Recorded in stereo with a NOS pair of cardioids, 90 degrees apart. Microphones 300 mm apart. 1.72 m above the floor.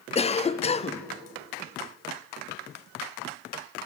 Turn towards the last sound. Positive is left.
turn(degrees=20)